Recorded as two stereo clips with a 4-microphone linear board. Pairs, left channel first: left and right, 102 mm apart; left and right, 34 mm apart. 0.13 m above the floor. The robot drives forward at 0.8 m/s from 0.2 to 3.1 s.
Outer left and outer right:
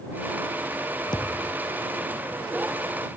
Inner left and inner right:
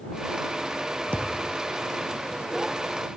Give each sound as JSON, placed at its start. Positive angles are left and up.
{"t": 1.1, "sound": "a thud", "side_deg": 45}